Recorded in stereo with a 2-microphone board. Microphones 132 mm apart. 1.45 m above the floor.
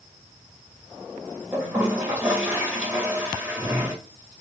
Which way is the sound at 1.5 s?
15° right (ahead or behind).